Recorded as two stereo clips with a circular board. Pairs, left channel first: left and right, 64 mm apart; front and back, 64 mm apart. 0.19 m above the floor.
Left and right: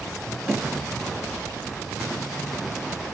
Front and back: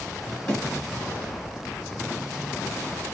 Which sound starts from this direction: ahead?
A snare drum, at 0.5 s.